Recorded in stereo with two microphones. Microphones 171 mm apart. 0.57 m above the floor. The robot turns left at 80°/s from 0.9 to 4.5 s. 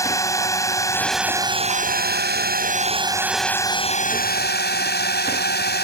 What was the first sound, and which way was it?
A drone, 20° left.